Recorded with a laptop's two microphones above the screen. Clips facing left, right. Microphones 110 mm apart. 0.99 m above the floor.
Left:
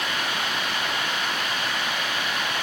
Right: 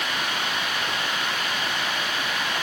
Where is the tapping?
I don't hear tapping.